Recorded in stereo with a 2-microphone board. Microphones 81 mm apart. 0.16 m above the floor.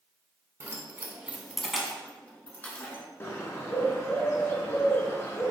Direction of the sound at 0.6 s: 35° right (ahead or behind).